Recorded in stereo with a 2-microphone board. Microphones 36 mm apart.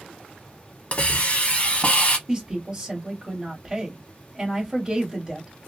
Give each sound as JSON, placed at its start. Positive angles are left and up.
{"t": 0.9, "sound": "a hiss", "side_deg": 40, "distance_m": 0.7}
{"t": 2.3, "sound": "a woman speaking", "side_deg": -20, "distance_m": 1.3}